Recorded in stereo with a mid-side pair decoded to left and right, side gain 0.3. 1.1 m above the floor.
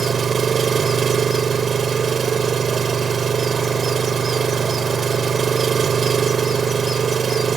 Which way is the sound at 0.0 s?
60° right.